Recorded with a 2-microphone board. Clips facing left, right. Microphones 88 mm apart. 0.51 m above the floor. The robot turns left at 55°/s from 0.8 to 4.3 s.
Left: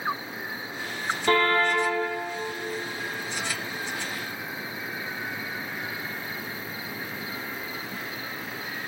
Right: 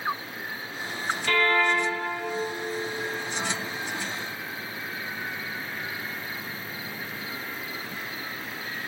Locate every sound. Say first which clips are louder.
1.3 s a car horn: left 1 dB; 145° left, 5.5 m; by 1.9 s 110° left, 5.5 m